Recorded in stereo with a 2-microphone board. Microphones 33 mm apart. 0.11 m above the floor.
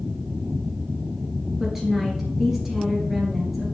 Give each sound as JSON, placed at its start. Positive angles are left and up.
{"t": 1.6, "sound": "a woman speaking", "side_deg": -10, "distance_m": 1.6}